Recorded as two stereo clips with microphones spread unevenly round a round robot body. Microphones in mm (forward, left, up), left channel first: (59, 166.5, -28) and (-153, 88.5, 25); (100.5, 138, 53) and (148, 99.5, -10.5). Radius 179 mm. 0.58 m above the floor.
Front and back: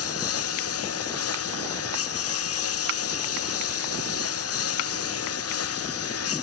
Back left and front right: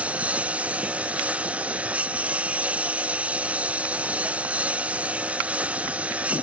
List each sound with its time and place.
0.0 s a lawn mower: 30° left